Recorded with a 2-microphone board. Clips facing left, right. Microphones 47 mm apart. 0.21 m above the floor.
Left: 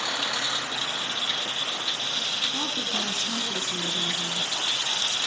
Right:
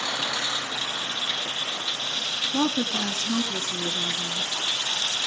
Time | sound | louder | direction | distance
2.5 | a woman speaking | right 5 dB | 30° right (ahead or behind) | 1.9 m